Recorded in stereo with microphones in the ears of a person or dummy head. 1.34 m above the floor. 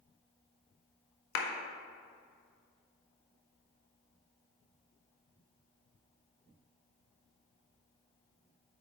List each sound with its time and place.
1.4 s a clap: 70° left (ahead or behind), 0.8 m